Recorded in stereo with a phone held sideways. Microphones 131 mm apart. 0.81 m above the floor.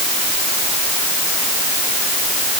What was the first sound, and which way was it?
Only background noise.